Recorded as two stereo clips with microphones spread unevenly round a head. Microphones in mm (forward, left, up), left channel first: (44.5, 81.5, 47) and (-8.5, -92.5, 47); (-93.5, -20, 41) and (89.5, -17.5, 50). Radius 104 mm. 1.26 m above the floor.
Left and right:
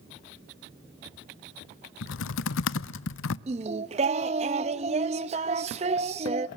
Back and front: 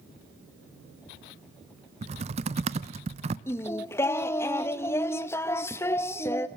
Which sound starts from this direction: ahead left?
Typing on a keyboard, at 2.0 s.